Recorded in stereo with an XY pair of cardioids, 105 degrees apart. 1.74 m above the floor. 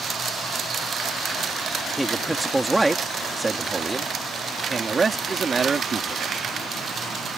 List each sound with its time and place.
2.0 s a man speaking: 5° right; by 6.3 s 40° right